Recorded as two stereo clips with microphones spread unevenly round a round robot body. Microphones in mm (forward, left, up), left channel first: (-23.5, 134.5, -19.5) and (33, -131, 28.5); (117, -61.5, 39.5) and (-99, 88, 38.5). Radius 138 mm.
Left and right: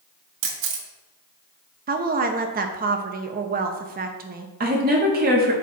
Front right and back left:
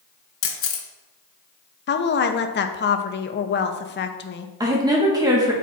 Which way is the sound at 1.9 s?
25° right.